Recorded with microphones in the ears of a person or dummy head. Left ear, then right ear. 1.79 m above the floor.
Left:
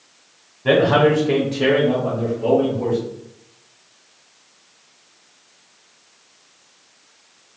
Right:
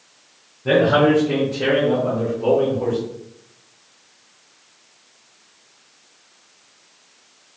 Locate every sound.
0.7 s a man speaking: 65° left (ahead or behind), 0.8 m; by 3.0 s 40° right (ahead or behind), 1.1 m